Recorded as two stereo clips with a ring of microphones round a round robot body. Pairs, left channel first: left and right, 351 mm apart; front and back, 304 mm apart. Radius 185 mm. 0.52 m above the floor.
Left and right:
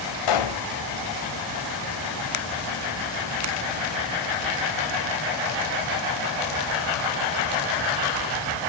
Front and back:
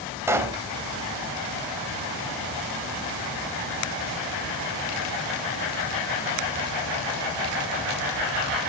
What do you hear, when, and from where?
0.3 s a pop: 100° left, 2.5 m